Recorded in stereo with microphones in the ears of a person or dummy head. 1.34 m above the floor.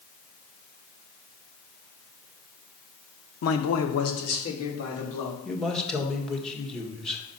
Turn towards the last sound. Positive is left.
turn(degrees=5)  # may be behind; listen again after turning